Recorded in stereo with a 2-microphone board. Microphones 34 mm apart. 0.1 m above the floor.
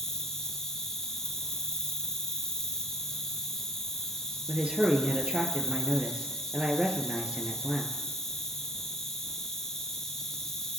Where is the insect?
15° left (ahead or behind), 0.7 m.